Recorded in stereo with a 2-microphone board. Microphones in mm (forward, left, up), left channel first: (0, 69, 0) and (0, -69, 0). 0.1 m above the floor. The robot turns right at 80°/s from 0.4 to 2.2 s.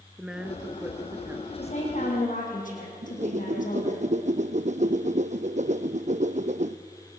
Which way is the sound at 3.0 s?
60° right (ahead or behind).